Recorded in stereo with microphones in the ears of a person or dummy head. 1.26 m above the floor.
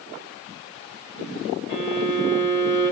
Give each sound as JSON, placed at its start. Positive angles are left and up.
{"t": 1.7, "sound": "a violin", "side_deg": 20, "distance_m": 7.0}